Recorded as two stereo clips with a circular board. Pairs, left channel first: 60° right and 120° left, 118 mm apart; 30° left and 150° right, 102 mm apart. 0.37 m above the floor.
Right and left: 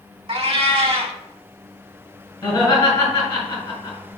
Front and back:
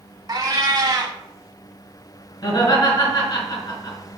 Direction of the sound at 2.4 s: Straight ahead.